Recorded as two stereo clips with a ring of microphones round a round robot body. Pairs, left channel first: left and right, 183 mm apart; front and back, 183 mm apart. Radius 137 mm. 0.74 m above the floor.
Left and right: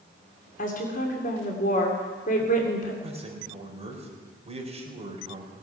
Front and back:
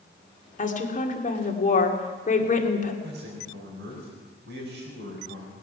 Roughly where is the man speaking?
Behind right.